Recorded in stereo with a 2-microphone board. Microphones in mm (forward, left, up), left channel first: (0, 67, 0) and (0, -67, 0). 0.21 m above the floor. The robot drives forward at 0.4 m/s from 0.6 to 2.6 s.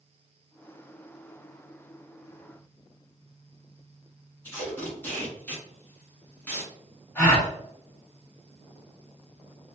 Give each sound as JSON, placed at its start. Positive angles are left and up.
{"t": 4.4, "sound": "tape being pulled", "side_deg": 15, "distance_m": 1.5}
{"t": 7.2, "sound": "a gasp", "side_deg": 15, "distance_m": 1.6}